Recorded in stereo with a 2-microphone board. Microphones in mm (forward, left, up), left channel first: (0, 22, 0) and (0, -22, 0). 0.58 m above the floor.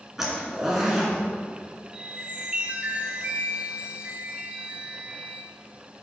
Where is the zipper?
5° right (ahead or behind), 1.4 m.